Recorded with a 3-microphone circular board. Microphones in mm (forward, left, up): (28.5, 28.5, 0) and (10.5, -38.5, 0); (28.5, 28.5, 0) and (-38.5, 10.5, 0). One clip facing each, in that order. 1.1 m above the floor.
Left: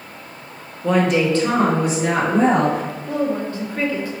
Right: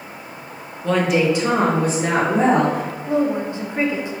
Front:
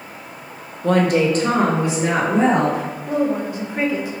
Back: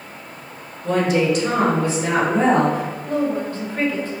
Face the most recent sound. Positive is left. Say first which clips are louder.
# right 3 dB, front 2 dB
turn(degrees=-50)